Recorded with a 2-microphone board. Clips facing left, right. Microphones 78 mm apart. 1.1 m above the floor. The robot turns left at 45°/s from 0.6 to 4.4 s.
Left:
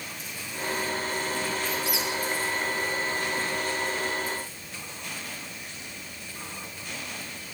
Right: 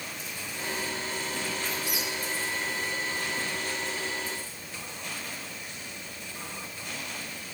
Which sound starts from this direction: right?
A squeak, at 1.6 s.